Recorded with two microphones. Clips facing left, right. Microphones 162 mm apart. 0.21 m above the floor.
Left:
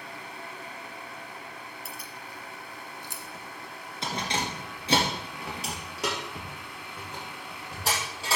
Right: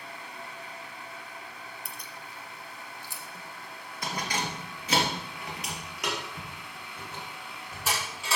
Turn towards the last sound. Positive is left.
turn(degrees=35)  # may be behind; listen again after turning